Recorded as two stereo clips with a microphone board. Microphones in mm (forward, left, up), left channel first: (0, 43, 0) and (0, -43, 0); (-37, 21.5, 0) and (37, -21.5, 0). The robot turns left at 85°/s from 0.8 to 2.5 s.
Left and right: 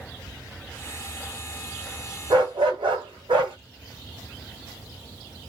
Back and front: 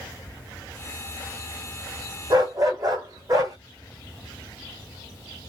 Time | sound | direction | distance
2.3 | a dog barking | 60° right | 2 m